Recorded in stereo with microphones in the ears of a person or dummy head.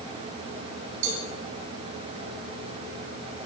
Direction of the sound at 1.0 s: 70° right (ahead or behind).